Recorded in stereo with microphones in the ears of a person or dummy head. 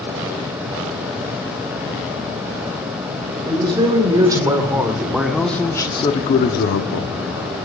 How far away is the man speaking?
About 2 m.